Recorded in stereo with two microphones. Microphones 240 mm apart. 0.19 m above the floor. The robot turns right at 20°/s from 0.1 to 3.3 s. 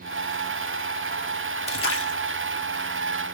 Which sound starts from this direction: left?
A splash, at 1.7 s.